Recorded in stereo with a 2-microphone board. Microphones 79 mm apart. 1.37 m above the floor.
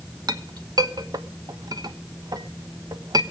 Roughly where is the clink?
Right.